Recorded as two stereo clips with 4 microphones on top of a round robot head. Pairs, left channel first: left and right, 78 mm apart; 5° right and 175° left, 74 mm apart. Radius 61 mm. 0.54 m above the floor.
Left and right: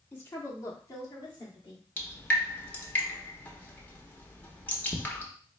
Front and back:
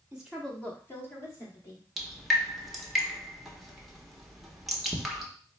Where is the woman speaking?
130° left, 0.8 m; by 1.9 s 35° left, 2 m.